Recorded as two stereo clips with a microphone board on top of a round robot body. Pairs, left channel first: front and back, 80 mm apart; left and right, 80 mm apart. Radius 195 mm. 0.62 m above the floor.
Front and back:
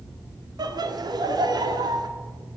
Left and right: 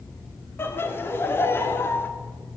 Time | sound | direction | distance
0.6 | laughter | 150° left | 1.9 m